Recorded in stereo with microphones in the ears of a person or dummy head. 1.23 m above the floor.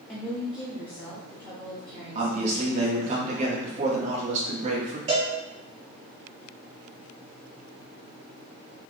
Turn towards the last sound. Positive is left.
turn(degrees=-35)  # may be behind; listen again after turning